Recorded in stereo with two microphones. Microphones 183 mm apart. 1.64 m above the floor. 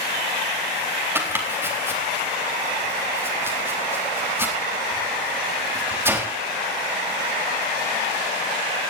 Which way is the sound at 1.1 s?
10° right (ahead or behind).